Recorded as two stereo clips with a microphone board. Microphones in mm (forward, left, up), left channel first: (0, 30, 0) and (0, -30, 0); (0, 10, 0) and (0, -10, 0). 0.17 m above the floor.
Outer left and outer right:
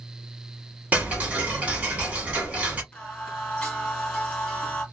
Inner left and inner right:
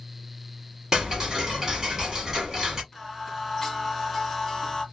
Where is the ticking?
25° right (ahead or behind), 1.1 m.